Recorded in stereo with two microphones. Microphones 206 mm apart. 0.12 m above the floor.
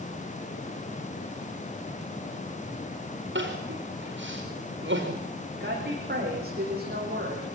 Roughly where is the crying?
Right.